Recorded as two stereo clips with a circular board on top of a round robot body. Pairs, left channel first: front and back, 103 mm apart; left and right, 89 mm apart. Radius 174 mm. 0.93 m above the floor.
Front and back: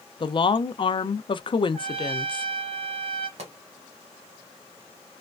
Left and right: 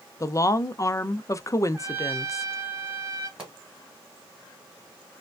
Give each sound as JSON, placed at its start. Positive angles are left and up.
{"t": 0.2, "sound": "a woman speaking", "azimuth_deg": 35, "distance_m": 0.6}
{"t": 1.7, "sound": "a trumpet", "azimuth_deg": -155, "distance_m": 1.2}
{"t": 3.4, "sound": "a pop", "azimuth_deg": -170, "distance_m": 1.1}